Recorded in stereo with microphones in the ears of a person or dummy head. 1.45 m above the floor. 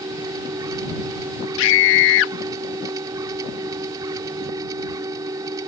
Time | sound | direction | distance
0.0 | a machine running | 20° right (ahead or behind) | ?
1.6 | a scream | 70° left (ahead or behind) | ?